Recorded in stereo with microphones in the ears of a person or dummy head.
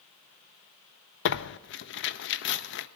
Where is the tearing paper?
55° left (ahead or behind), 0.6 m.